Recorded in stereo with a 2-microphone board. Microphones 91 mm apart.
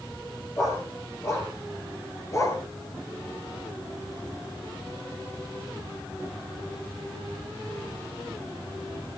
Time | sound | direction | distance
0.6 | a dog barking | 25° left (ahead or behind) | 5.5 m